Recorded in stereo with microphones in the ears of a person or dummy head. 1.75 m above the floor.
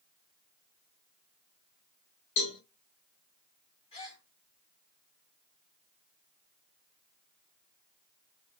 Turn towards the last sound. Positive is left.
turn(degrees=30)  # may be behind; listen again after turning